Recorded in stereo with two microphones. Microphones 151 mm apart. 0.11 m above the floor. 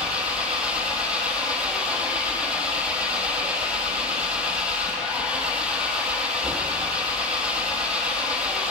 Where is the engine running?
5° right (ahead or behind), 1.0 m.